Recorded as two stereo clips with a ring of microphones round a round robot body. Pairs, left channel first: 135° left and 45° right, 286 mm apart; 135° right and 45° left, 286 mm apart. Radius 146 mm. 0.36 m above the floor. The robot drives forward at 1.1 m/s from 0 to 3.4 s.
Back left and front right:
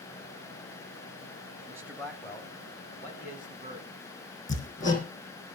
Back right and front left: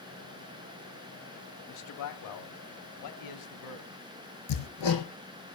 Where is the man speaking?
120° right, 1.4 m; by 3.9 s 160° right, 3 m.